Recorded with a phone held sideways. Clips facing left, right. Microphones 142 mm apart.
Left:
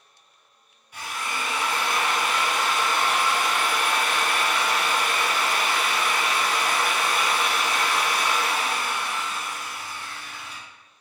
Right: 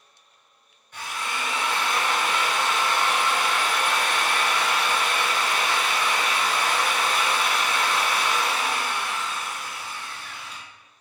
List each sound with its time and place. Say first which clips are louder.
0.9 s a drill: even; 10° left (ahead or behind), 1.4 m